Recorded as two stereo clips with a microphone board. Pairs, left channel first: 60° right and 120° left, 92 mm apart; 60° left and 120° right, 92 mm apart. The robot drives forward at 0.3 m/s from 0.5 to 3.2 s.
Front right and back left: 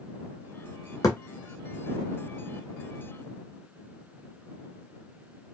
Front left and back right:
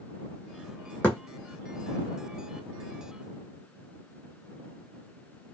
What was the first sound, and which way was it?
A thud, 10° right.